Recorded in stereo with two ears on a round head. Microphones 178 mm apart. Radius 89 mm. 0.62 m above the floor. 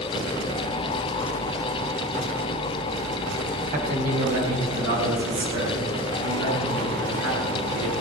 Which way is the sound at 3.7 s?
45° right (ahead or behind).